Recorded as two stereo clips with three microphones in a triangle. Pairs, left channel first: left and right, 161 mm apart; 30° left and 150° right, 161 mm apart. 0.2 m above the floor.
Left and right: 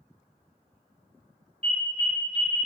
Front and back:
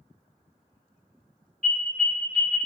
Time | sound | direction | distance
1.6 | an alarm | 50° right | 1.7 m